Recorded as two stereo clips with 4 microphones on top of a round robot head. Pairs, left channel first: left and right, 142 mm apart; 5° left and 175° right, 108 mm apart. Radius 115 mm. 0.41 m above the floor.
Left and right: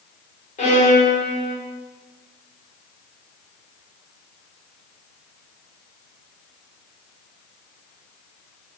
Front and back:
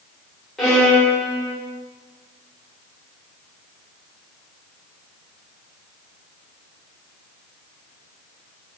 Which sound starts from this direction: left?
A violin, at 0.6 s.